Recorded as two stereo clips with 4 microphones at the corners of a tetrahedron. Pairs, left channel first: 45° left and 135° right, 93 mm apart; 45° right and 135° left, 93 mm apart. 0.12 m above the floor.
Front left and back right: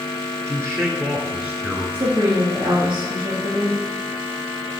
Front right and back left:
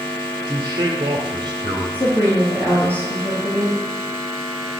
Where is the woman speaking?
115° right, 4.5 m.